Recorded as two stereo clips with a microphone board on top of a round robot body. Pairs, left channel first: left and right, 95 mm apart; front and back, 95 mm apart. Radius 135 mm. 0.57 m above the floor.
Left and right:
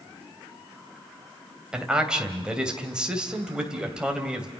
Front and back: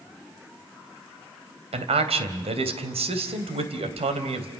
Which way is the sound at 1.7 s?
170° right.